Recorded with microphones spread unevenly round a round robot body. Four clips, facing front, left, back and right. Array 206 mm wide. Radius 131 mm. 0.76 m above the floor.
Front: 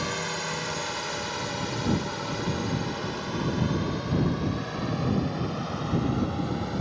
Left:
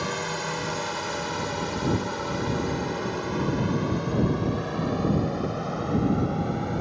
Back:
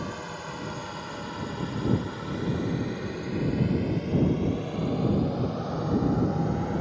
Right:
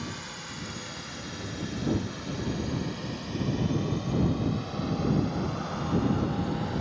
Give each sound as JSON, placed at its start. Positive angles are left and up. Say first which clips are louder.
{"t": 0.0, "sound": "a drone", "louder": "left 10 dB, front 4 dB", "azimuth_deg": 60}